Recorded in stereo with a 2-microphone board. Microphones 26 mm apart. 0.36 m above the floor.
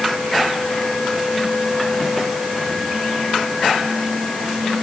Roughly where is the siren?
I don't hear a siren.